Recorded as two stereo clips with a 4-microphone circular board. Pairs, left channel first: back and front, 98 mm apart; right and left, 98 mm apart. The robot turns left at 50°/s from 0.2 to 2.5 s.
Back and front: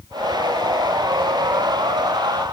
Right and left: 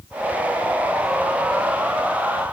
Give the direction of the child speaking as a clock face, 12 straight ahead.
No child speaking in this recording.